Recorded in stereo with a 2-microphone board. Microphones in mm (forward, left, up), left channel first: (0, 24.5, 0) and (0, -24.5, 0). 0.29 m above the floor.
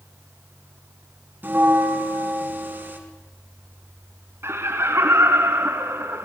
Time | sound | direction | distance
1.4 | a bell | 45° right (ahead or behind) | 3.5 m
4.4 | laughter | 60° right (ahead or behind) | 3 m